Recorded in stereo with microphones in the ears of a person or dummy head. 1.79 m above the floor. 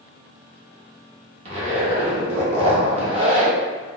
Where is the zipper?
45° right (ahead or behind), 1.1 m.